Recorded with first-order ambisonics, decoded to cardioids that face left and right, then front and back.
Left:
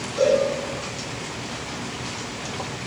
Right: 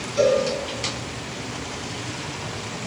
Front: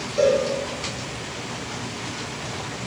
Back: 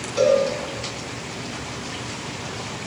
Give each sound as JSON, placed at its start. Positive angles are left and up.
{"t": 0.2, "sound": "a cowbell", "azimuth_deg": -165, "distance_m": 2.0}